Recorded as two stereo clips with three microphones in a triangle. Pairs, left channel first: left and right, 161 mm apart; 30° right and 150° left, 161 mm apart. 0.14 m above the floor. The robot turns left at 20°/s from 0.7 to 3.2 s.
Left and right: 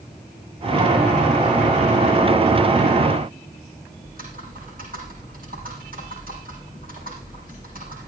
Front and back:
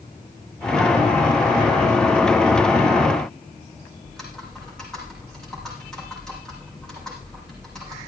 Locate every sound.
4.0 s typing on a keyboard: 115° right, 7 m